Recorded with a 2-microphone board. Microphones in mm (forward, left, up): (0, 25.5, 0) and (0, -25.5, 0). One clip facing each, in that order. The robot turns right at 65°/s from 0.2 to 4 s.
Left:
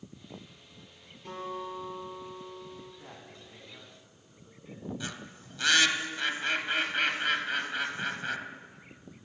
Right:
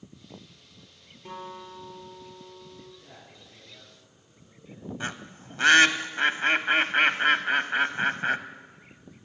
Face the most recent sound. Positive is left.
turn(degrees=-45)  # may be behind; listen again after turning